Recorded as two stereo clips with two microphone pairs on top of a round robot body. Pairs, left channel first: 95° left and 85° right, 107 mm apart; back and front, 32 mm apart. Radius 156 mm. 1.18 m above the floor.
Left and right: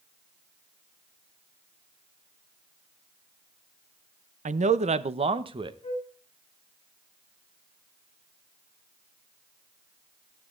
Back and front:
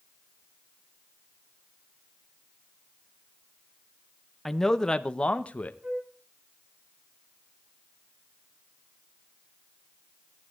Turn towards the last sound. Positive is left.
turn(degrees=55)